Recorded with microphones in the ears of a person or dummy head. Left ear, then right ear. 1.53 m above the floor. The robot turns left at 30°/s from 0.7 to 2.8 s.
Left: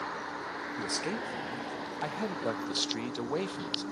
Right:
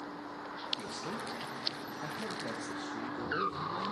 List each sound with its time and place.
0.8 s a man speaking: 135° left, 0.5 m; by 3.8 s 75° left, 0.5 m